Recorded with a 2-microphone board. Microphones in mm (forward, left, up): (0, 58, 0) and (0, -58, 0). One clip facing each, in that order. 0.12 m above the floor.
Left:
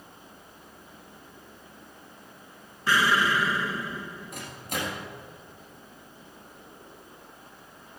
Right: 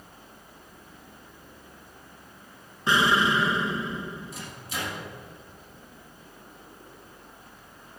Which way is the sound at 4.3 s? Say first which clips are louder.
Left 2 dB; 50° left (ahead or behind).